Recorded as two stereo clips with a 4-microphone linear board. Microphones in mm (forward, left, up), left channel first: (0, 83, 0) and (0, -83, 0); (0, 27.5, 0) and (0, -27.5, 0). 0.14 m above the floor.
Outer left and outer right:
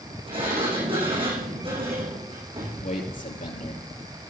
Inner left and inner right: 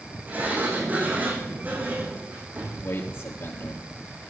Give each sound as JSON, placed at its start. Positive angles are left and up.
{"t": 0.3, "sound": "a sliding door", "side_deg": -35, "distance_m": 8.0}
{"t": 2.8, "sound": "a man speaking", "side_deg": 55, "distance_m": 3.0}